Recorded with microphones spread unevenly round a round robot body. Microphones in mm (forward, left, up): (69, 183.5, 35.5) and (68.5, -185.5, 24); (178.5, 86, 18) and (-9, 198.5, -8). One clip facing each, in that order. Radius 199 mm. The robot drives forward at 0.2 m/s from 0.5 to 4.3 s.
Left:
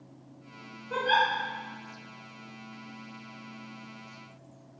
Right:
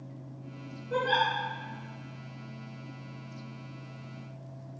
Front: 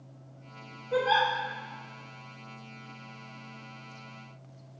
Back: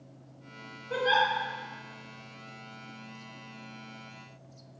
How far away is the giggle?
About 0.9 m.